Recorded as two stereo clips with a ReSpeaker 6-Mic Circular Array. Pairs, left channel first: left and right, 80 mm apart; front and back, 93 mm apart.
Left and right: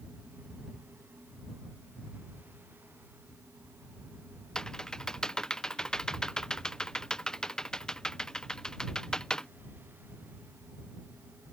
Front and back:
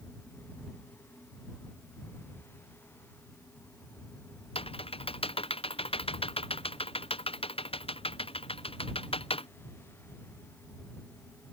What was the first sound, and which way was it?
Typing on a keyboard, 10° left.